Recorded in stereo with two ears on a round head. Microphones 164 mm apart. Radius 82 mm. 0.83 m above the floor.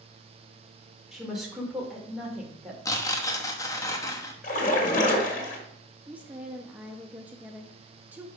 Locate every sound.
1.1 s a woman speaking: centre (ahead or behind), 2.0 m
2.9 s tearing paper: 20° left (ahead or behind), 1.1 m
4.4 s a splash: 45° left (ahead or behind), 1.6 m
6.1 s a woman speaking: 10° right (ahead or behind), 0.7 m